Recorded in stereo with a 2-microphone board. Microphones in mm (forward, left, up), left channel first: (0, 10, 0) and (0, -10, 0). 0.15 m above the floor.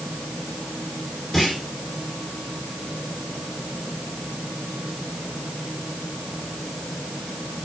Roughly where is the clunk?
Centre.